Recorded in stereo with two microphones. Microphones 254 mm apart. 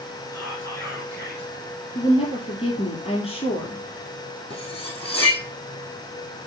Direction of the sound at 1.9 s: 20° left (ahead or behind).